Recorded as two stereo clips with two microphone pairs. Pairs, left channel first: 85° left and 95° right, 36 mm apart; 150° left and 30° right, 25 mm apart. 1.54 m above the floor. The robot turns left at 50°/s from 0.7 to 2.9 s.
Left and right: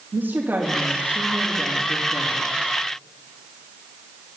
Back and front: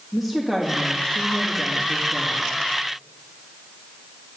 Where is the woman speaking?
125° right, 3 m; by 2.5 s 145° left, 3 m.